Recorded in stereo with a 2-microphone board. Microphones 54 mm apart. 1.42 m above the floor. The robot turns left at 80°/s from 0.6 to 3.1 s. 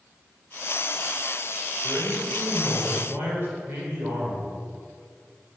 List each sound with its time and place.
1.8 s a man speaking: 35° right, 4.5 m; by 4.5 s 135° right, 4.5 m